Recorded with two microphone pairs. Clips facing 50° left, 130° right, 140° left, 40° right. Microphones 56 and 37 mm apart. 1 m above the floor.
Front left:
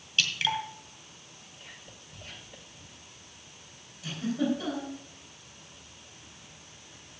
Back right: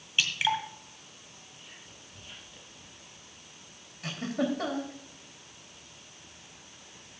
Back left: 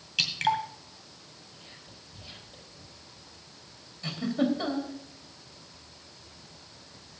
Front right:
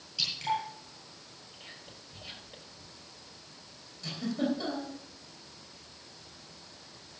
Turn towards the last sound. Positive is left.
turn(degrees=-160)